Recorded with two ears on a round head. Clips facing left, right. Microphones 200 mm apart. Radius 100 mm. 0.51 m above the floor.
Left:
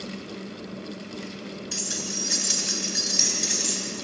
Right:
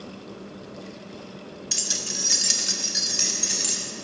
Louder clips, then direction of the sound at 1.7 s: Left 3 dB; 60° right (ahead or behind).